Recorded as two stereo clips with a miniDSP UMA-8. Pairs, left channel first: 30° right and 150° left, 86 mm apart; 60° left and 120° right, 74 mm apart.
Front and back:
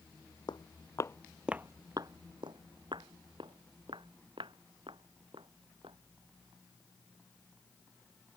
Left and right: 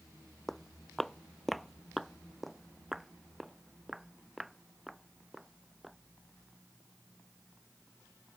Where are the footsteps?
25° right; by 6.0 s 155° left.